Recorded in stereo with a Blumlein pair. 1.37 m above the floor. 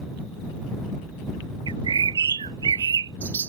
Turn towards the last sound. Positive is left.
turn(degrees=-70)